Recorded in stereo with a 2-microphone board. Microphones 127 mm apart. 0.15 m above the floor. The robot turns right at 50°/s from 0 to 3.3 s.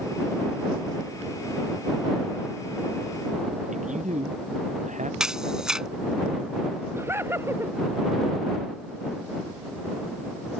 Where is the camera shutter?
5° right (ahead or behind).